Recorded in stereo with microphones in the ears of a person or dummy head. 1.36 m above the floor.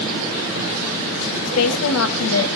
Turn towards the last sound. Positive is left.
turn(degrees=80)